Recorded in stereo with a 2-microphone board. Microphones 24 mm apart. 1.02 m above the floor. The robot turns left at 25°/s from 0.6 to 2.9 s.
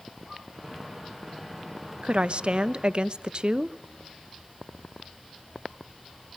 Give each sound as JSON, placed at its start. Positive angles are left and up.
{"t": 2.0, "sound": "a woman speaking", "side_deg": -55, "distance_m": 0.8}